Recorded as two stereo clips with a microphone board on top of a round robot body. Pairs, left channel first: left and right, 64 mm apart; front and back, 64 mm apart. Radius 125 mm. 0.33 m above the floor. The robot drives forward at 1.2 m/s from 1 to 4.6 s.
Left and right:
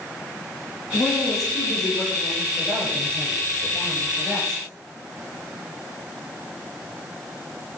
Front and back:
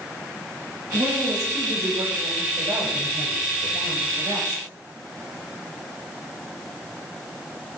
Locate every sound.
0.9 s a woman speaking: 145° left, 6.5 m; by 4.6 s 160° left, 10 m